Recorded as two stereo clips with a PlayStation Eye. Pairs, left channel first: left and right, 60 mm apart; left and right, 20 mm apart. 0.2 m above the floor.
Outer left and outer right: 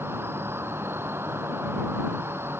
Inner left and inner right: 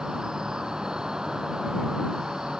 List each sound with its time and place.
0.0 s an insect: 40° right (ahead or behind)